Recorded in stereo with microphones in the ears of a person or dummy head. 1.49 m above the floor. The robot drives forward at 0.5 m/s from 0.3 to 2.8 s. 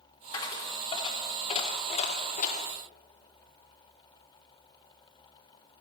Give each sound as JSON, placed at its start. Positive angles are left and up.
{"t": 0.3, "sound": "a dropped coin", "side_deg": 25, "distance_m": 2.0}